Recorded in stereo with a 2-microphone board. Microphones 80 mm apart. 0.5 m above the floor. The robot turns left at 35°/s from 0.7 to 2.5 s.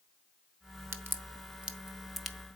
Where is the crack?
30° right (ahead or behind), 0.7 m; by 2.4 s 5° left (ahead or behind), 0.7 m.